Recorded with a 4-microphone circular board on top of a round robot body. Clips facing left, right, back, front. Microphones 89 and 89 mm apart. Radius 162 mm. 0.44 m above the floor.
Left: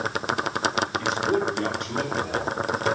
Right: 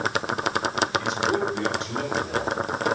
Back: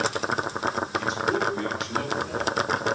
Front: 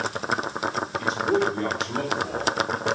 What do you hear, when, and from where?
1.0 s a man speaking: 50° left, 3 m; by 2.5 s 65° left, 3.5 m